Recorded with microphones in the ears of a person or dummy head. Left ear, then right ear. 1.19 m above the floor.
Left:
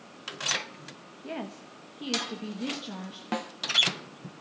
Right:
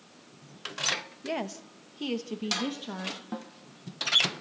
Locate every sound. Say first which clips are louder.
1.2 s a woman speaking: right 3 dB; 85° right, 1.2 m; by 3.2 s 20° right (ahead or behind), 1.7 m
3.3 s a snare drum: left 7 dB; 40° left (ahead or behind), 0.6 m